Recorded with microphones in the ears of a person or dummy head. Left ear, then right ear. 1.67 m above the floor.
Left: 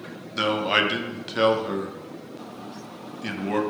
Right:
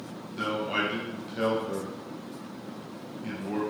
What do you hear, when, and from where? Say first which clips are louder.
0.3 s a man speaking: left 7 dB; 50° left (ahead or behind), 0.6 m